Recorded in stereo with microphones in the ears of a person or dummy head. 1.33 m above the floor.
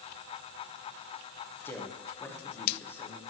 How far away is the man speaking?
About 1.1 m.